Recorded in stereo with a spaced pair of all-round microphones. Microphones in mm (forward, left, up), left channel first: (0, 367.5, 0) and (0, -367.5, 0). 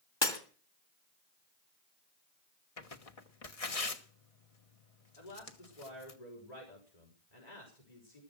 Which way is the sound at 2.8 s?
50° left (ahead or behind).